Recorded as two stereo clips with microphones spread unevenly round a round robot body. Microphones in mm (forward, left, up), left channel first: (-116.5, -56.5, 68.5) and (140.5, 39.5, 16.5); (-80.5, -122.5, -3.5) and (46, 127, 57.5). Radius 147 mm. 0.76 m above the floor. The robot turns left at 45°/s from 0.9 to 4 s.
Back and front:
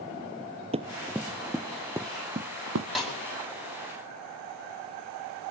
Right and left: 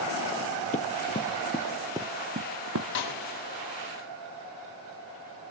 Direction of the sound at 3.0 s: 70° right.